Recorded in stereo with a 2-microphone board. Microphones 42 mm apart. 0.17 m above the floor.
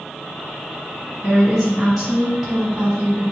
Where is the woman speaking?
10° right (ahead or behind), 1.1 m.